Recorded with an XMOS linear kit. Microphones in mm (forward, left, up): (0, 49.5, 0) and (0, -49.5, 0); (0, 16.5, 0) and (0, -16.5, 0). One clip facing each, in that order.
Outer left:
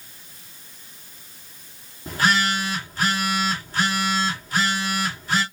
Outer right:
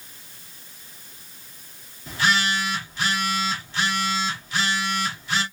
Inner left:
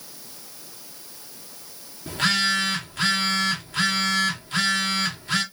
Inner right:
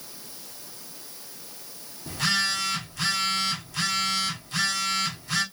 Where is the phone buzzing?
40° left (ahead or behind), 1.5 m.